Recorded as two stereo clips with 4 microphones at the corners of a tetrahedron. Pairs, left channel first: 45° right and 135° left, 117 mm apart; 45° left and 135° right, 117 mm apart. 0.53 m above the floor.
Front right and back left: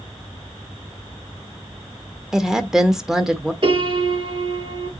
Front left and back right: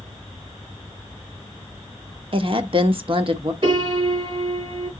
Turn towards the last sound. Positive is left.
turn(degrees=180)